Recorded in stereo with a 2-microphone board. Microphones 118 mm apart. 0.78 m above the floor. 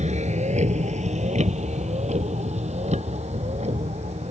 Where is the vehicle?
85° right; by 4.3 s 70° right (ahead or behind).